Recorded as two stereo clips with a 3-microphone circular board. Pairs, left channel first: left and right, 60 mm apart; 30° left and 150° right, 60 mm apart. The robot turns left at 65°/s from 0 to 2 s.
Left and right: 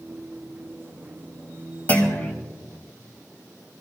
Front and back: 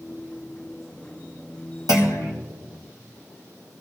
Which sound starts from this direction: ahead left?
A clunk, at 1.9 s.